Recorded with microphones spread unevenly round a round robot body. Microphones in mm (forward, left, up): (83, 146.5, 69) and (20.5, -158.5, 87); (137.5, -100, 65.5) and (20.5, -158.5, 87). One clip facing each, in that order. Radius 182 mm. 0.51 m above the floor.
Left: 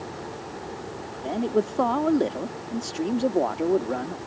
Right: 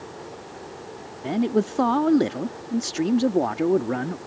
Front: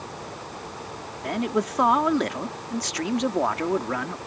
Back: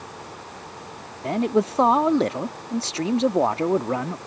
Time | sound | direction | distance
1.2 | a man speaking | 105° right | ?